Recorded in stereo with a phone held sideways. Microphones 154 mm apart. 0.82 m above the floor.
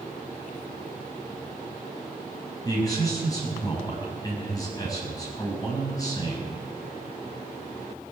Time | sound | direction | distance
2.6 | a man speaking | 25° left (ahead or behind) | 6 m